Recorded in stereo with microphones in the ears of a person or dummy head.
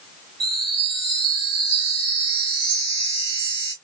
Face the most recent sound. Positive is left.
turn(degrees=-75)  # may be behind; listen again after turning